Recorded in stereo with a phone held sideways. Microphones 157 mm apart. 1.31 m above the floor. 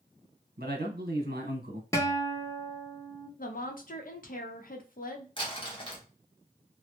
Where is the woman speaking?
60° left (ahead or behind), 0.7 m.